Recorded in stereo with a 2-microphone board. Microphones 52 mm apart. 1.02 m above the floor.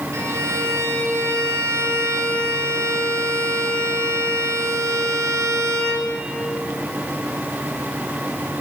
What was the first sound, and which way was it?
A violin, 80° right.